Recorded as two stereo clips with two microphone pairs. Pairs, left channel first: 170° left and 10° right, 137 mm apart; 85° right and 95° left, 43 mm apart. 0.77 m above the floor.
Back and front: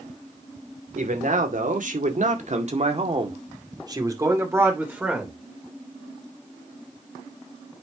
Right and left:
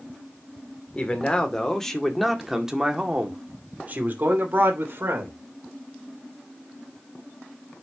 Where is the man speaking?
20° right, 2.5 m; by 5.3 s 75° left, 3 m.